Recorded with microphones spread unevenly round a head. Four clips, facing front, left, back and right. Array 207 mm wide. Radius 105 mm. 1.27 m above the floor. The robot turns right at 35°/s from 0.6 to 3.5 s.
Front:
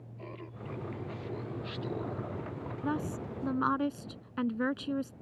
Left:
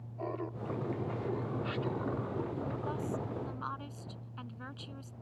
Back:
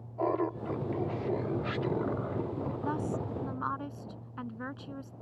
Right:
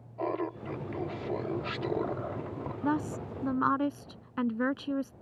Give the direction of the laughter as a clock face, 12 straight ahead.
5 o'clock.